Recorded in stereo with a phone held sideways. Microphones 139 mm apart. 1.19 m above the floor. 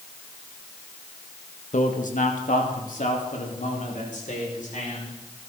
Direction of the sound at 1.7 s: 70° left (ahead or behind).